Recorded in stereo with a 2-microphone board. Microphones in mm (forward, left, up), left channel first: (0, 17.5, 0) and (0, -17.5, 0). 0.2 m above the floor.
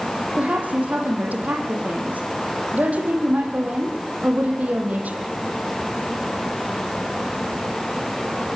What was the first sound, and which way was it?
A woman speaking, 45° right (ahead or behind).